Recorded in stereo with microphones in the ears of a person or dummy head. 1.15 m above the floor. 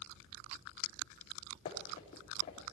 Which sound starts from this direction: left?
Running footsteps, at 1.6 s.